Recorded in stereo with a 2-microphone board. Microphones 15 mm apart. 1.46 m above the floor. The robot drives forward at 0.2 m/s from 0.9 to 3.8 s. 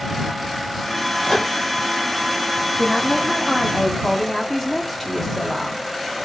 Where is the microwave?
55° left (ahead or behind), 1.2 m.